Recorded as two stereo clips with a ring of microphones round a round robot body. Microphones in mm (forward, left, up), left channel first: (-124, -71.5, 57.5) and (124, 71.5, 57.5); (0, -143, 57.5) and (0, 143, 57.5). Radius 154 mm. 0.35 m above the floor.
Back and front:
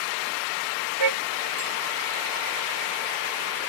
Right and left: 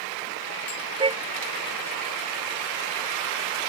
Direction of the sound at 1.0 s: 15° left.